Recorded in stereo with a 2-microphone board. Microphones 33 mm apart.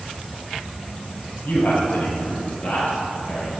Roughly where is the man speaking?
Left.